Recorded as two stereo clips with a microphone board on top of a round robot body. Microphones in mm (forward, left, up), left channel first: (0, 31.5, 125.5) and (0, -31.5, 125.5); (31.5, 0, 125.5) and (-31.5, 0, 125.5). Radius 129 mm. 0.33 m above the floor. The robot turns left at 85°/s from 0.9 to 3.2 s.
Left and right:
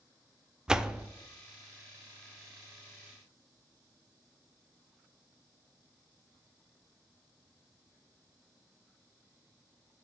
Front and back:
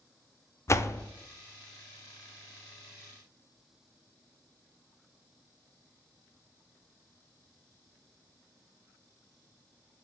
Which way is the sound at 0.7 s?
15° right.